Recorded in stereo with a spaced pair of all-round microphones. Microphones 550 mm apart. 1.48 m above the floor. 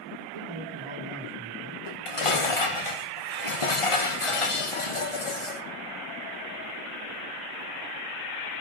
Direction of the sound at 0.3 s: 75° right (ahead or behind).